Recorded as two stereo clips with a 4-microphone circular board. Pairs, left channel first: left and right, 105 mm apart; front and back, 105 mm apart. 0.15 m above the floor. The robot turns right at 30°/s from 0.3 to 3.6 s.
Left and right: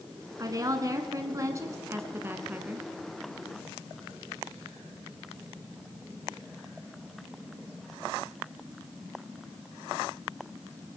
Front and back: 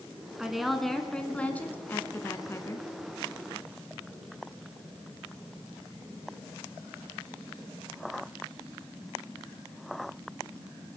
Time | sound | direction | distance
0.4 | a woman speaking | 100° right | 1.2 m